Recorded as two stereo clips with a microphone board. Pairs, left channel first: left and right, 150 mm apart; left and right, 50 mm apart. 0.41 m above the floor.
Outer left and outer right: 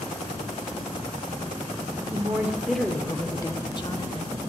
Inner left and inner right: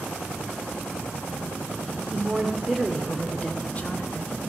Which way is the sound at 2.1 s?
20° right (ahead or behind).